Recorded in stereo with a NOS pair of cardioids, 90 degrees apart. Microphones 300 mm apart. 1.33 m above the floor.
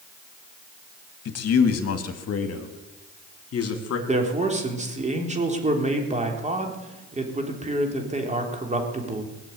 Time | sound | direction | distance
1.2 | a man speaking | 55° left | 2 m
4.1 | a man speaking | 25° right | 3.5 m